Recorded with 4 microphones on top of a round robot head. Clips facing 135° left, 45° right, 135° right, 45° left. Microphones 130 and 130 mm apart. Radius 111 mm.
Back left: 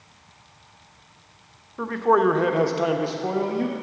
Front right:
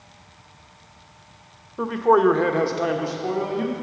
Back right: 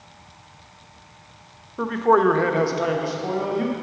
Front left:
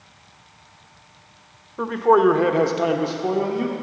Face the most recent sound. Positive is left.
turn(degrees=95)